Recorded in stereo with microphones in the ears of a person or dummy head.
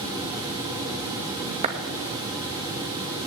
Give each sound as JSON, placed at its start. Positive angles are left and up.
{"t": 1.6, "sound": "a clap", "side_deg": -30, "distance_m": 2.5}